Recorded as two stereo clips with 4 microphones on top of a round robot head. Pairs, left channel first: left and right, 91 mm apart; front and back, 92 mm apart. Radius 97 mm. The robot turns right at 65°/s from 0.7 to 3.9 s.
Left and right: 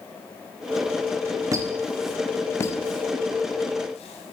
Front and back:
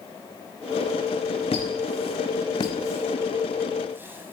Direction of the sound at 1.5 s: 40° right.